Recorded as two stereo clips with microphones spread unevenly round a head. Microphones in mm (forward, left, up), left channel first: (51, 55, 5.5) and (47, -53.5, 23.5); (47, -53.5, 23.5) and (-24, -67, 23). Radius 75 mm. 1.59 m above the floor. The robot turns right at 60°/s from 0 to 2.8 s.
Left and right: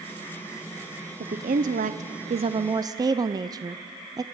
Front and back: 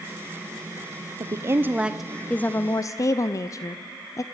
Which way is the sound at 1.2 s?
130° right.